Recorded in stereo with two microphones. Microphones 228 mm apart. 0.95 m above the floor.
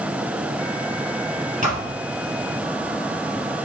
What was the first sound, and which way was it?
A thud, 30° right (ahead or behind).